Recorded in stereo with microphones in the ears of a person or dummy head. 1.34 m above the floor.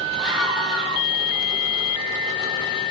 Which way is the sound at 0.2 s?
Centre (ahead or behind).